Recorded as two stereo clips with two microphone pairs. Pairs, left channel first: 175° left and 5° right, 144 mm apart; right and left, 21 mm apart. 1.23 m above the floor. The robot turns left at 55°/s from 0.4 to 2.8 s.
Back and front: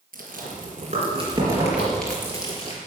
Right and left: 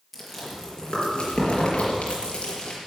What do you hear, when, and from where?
0.1 s chewing: 5° right, 4.5 m; by 2.8 s 140° right, 4.5 m